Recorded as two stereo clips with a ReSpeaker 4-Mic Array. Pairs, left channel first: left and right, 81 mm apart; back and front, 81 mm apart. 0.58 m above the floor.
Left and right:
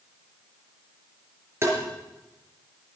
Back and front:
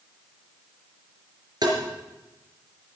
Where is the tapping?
35° right, 4 m.